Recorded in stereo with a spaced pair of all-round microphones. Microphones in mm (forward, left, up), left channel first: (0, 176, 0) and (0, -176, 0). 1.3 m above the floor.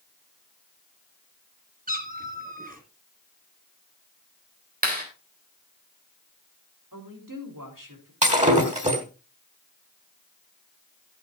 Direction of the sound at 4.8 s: 25° right (ahead or behind).